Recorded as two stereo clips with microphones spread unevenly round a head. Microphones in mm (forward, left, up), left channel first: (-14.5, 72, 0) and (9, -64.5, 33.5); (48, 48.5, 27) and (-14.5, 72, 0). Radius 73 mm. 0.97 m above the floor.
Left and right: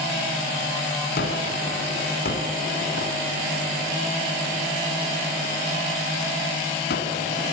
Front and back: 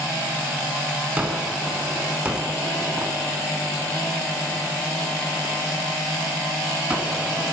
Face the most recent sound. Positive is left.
turn(degrees=85)